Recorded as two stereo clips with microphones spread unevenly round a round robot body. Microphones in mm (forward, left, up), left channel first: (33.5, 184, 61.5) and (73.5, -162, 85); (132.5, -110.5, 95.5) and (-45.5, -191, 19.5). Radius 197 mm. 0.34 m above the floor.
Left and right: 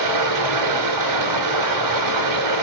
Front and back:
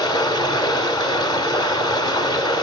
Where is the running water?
50° right, 0.9 m.